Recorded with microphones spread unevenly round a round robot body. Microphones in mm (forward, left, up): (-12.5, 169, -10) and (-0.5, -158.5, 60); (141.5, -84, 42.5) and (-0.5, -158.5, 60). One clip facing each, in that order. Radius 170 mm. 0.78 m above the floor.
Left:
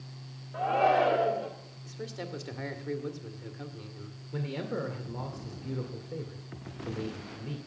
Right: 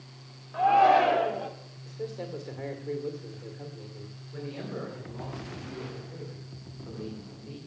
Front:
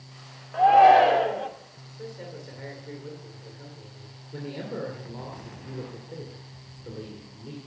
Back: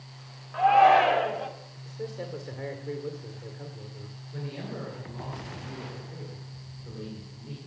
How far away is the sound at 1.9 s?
About 2.0 m.